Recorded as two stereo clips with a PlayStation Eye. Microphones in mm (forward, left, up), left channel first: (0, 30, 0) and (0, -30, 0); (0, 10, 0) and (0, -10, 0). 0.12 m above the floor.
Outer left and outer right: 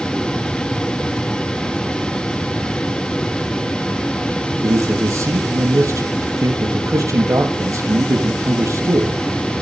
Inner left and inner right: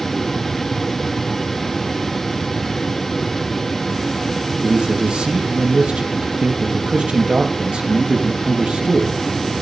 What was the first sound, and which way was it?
A man speaking, 55° right (ahead or behind).